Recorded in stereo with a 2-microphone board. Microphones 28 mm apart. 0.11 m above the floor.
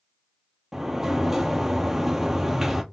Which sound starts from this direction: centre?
A sliding door, at 0.7 s.